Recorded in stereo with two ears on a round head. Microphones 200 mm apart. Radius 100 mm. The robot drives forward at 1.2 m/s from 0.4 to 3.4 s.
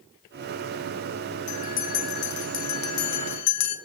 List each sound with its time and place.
1.5 s a bell: 35° left (ahead or behind), 2.5 m; by 3.8 s 80° left, 1.5 m